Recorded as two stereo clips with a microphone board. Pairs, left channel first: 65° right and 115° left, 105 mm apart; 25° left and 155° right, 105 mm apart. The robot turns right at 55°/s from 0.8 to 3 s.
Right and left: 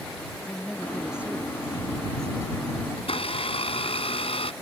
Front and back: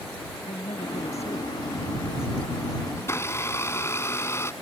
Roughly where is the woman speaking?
Ahead.